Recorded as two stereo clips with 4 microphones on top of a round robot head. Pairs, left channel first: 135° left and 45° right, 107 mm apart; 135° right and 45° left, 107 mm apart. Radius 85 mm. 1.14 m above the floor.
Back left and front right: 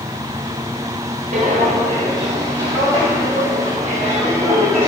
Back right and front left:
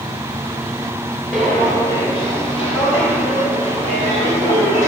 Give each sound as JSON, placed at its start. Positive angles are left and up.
{"t": 1.3, "sound": "footsteps", "azimuth_deg": -50, "distance_m": 1.4}